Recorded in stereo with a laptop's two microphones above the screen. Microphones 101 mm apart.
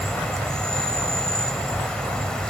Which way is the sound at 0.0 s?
10° left (ahead or behind).